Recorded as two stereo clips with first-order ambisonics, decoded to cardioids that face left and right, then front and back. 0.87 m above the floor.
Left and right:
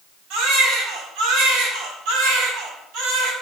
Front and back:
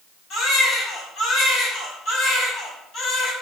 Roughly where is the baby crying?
Ahead right.